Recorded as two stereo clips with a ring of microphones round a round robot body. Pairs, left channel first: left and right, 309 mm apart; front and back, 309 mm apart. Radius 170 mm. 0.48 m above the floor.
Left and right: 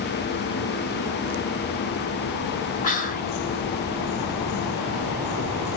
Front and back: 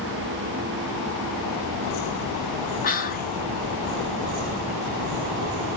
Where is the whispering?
45° left, 0.9 m.